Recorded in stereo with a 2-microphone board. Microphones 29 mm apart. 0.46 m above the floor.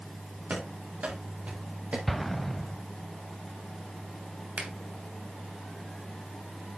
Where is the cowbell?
No cowbell in this recording.